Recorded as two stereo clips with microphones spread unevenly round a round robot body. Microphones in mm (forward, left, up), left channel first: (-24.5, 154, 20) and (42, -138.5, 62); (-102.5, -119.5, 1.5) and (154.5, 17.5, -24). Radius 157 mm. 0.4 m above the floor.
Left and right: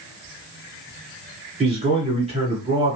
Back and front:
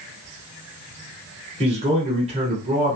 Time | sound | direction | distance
1.6 | a man speaking | 10° right | 1.6 m